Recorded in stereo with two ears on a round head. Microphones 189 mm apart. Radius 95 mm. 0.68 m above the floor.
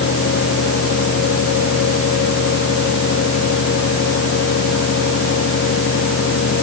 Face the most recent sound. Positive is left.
No sound to turn to.